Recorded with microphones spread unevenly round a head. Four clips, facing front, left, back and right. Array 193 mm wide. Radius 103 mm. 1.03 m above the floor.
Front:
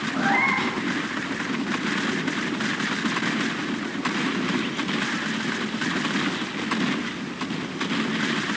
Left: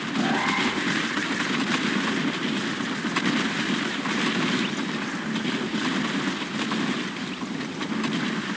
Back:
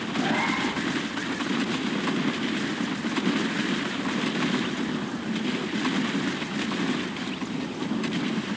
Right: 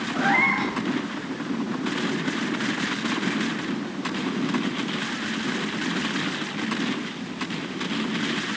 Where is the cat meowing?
45° right, 9 m.